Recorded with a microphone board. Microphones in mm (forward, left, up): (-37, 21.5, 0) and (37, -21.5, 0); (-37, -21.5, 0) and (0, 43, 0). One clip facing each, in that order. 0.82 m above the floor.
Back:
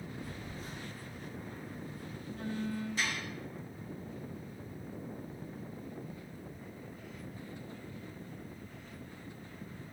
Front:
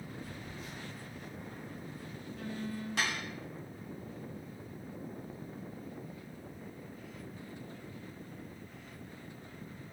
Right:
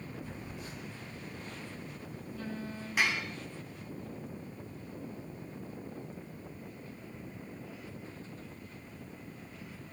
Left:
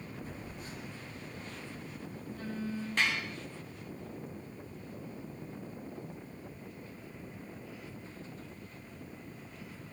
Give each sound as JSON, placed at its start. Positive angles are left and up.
{"t": 0.2, "sound": "a phone buzzing", "azimuth_deg": 100, "distance_m": 7.0}
{"t": 3.0, "sound": "dishes clattering", "azimuth_deg": -40, "distance_m": 3.5}